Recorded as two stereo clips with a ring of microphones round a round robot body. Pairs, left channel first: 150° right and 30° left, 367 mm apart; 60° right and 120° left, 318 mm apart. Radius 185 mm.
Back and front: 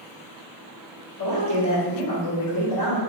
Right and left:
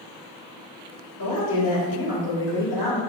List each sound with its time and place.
1.2 s a man speaking: 110° right, 2 m